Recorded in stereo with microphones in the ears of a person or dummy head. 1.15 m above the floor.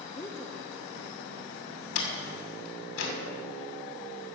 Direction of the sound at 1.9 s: 80° left.